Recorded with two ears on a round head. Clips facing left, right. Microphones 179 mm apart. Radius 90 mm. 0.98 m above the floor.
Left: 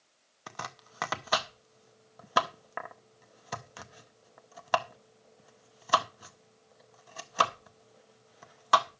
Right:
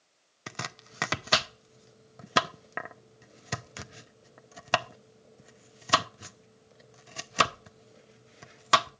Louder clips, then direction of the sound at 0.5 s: Right 2 dB; 30° right (ahead or behind).